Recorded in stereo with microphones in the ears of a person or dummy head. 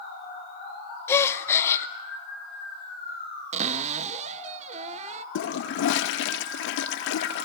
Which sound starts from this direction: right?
A cupboard door, at 3.5 s.